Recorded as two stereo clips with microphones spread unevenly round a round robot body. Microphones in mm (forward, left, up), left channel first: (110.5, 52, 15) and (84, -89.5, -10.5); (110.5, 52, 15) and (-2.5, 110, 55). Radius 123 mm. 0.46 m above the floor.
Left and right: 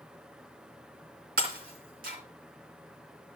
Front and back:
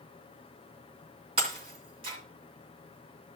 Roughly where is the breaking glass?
Behind right.